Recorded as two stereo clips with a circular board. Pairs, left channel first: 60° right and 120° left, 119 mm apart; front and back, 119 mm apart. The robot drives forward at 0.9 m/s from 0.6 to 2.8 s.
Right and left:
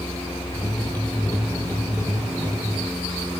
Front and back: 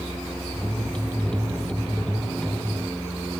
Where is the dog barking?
No dog barking in this recording.